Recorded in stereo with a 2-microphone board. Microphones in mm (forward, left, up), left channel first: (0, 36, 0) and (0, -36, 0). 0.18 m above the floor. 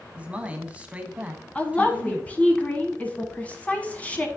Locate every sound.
0.1 s a man speaking: 20° right (ahead or behind), 1.0 m
1.6 s a woman speaking: 20° left (ahead or behind), 1.2 m